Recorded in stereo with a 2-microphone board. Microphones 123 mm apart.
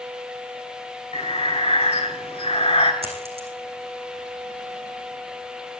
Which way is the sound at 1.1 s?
50° left (ahead or behind).